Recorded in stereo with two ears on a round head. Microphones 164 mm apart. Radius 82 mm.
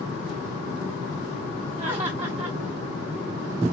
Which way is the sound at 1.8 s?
25° right (ahead or behind).